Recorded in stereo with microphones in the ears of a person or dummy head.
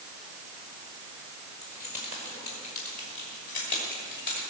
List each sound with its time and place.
1.6 s keys jangling: 35° left (ahead or behind), 5 m; by 4.4 s 55° left (ahead or behind), 6 m